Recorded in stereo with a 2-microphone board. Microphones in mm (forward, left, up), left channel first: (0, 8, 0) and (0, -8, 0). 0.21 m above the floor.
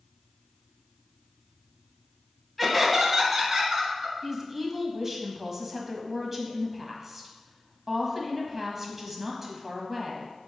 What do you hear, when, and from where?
2.6 s laughter: 5° left (ahead or behind), 1.1 m; by 4.1 s 25° right (ahead or behind), 2 m
4.2 s a woman speaking: 20° right (ahead or behind), 1.1 m